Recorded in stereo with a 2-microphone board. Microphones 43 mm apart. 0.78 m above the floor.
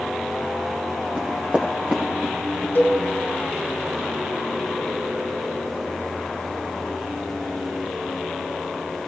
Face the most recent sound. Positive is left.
turn(degrees=60)  # may be behind; listen again after turning